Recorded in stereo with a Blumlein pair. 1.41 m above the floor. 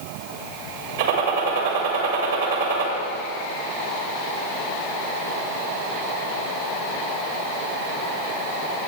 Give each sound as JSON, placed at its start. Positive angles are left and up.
{"t": 1.0, "sound": "a gunshot", "azimuth_deg": -60, "distance_m": 1.6}